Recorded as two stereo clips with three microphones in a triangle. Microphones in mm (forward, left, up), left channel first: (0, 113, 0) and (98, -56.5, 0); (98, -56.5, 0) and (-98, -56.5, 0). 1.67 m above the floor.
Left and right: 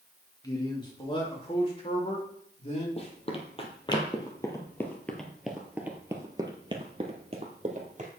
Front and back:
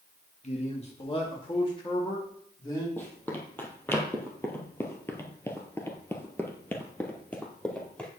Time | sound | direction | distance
0.4 | a man speaking | 50° left | 2 m
3.0 | running footsteps | 75° left | 2.5 m